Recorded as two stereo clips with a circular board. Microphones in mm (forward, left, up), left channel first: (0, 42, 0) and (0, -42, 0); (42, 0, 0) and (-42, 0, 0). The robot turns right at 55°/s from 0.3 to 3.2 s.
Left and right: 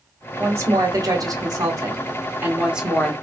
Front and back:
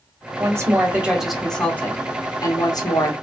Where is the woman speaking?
145° right, 1.4 m; by 3.1 s 10° left, 1.4 m.